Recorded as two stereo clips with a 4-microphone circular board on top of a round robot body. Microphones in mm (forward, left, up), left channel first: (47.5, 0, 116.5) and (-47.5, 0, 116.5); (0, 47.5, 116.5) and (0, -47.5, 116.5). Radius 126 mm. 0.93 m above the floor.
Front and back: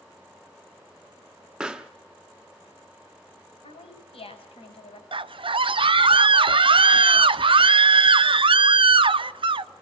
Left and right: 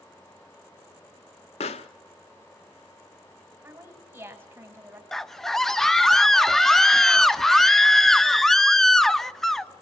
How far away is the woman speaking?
About 5 m.